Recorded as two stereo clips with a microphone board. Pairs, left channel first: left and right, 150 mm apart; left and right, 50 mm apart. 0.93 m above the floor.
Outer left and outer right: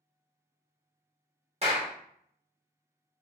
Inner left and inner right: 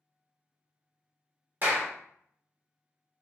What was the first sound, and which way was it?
A clap, 40° right (ahead or behind).